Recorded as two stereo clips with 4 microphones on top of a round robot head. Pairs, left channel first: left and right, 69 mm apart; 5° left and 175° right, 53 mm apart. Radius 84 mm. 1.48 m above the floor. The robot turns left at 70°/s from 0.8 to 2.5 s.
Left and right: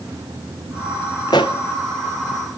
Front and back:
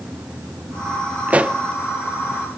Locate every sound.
1.3 s a pop: 135° left, 0.5 m; by 1.6 s 115° left, 0.5 m